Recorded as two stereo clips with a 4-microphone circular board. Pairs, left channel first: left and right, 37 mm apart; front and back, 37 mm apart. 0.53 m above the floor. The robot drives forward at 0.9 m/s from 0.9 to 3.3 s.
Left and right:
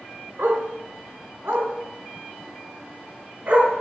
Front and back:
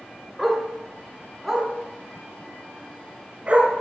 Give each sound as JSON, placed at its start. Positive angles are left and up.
{"t": 0.4, "sound": "a dog barking", "azimuth_deg": -85, "distance_m": 2.5}